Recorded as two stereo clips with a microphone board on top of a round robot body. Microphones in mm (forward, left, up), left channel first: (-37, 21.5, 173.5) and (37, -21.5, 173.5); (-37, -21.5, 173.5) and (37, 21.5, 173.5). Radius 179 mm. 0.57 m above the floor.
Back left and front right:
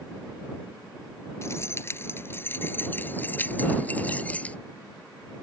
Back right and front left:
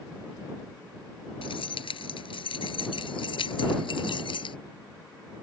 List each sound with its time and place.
1.4 s keys jangling: 150° right; by 4.6 s 135° right